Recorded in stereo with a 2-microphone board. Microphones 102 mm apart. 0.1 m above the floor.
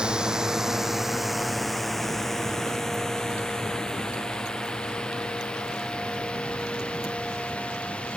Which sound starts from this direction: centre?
A drone, at 0.0 s.